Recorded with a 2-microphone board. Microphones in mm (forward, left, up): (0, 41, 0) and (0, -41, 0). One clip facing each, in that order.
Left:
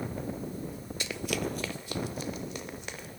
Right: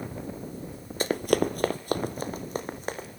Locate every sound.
1.0 s running footsteps: 40° right (ahead or behind), 0.9 m